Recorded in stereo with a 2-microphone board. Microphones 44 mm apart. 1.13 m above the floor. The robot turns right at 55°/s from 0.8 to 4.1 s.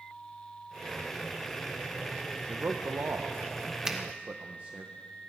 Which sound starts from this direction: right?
A man speaking, at 2.5 s.